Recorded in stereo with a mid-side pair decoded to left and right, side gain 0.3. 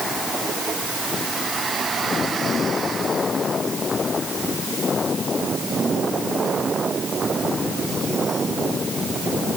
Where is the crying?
I don't hear crying.